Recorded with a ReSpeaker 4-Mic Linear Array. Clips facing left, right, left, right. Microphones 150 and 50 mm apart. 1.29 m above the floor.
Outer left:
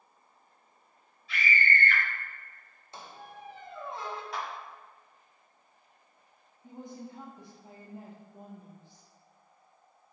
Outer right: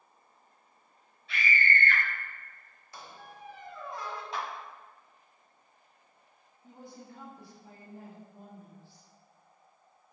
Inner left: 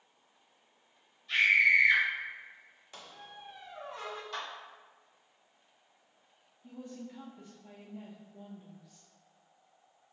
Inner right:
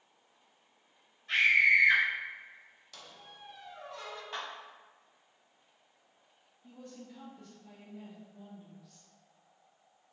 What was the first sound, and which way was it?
A scream, 60° right (ahead or behind).